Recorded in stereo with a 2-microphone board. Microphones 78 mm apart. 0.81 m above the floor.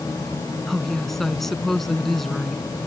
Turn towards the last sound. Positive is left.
turn(degrees=5)  # may be behind; listen again after turning